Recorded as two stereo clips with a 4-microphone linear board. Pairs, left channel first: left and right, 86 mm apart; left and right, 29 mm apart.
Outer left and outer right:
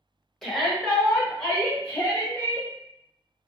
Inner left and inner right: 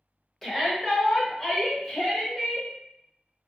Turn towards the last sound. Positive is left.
turn(degrees=15)  # may be behind; listen again after turning